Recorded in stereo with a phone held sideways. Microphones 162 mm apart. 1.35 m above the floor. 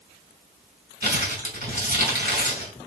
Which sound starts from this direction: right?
Crumpling, at 1.0 s.